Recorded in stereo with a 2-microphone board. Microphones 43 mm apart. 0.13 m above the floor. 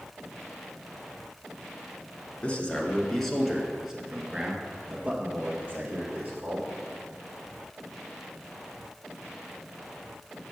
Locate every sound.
2.4 s a man speaking: 25° left (ahead or behind), 1.4 m; by 6.7 s 50° right (ahead or behind), 2.5 m